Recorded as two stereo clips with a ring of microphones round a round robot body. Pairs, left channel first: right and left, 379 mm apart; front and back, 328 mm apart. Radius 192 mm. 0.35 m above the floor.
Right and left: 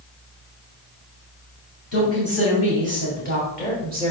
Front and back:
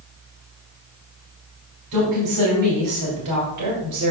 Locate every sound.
1.9 s a woman speaking: 140° right, 2.5 m; by 4.1 s 165° right, 1.8 m